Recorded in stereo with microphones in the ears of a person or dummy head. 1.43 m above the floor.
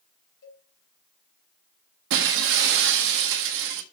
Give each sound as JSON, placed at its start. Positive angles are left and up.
{"t": 0.4, "sound": "a cowbell", "side_deg": 65, "distance_m": 4.5}
{"t": 2.1, "sound": "breaking glass", "side_deg": -65, "distance_m": 1.4}